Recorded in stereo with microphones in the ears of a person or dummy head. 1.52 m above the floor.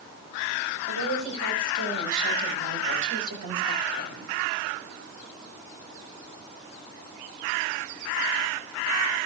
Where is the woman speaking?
70° right (ahead or behind), 9 m; by 4.3 s 80° right, 9.5 m.